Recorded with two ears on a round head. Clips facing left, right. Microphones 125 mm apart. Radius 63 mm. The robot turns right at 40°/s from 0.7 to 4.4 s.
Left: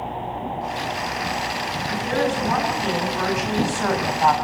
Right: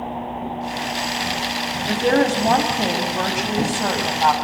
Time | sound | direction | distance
1.9 | a woman speaking | 95° right | 5.5 m